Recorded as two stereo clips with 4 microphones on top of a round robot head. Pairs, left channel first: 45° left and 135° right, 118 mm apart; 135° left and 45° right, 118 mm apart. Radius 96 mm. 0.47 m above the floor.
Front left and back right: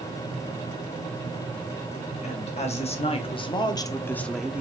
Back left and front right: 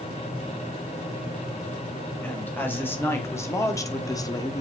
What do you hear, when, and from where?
2.2 s a woman speaking: 60° left, 3 m; by 4.6 s 160° left, 1.2 m